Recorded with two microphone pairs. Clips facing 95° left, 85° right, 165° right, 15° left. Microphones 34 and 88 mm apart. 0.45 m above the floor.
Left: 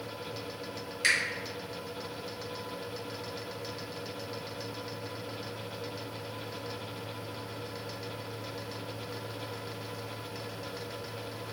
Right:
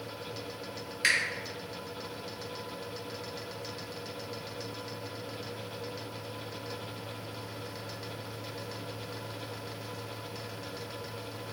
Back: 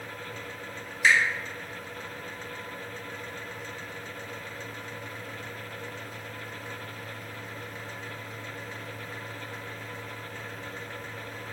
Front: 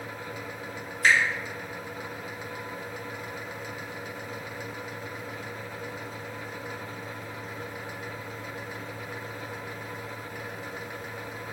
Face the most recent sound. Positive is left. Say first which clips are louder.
# even, even
turn(degrees=-15)